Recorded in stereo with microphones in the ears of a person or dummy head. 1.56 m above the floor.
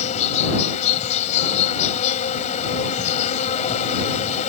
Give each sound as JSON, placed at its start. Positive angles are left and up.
{"t": 0.0, "sound": "an insect", "side_deg": 40}